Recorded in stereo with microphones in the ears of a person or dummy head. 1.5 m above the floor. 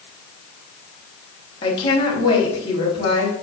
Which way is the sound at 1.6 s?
30° left (ahead or behind).